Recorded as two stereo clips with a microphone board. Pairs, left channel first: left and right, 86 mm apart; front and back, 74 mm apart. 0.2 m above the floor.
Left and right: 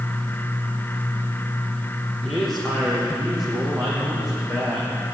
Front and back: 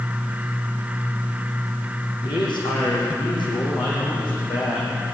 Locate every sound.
2.2 s a man speaking: 5° left, 8.5 m; by 5.2 s 5° right, 12 m